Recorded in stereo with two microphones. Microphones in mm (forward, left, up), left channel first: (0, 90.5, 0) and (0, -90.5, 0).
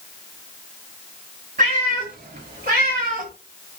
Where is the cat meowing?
50° right (ahead or behind), 1.7 m; by 3.3 s 45° right (ahead or behind), 0.7 m.